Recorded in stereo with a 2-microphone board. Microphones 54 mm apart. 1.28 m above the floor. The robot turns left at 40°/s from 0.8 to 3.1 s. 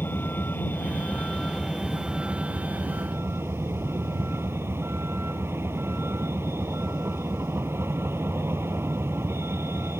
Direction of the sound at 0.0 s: 40° left.